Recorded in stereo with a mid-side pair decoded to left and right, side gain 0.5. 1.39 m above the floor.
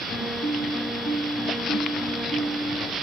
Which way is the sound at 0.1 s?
40° left.